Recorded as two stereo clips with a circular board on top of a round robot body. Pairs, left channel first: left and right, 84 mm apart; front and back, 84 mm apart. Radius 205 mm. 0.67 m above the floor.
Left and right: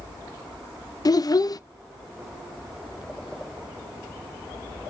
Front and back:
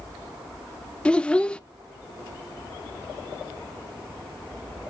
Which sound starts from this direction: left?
A child speaking, at 1.1 s.